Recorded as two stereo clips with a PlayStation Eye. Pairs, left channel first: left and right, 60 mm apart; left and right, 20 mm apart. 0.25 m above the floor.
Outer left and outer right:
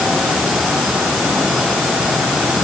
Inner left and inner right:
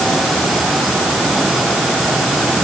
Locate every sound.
Only background noise.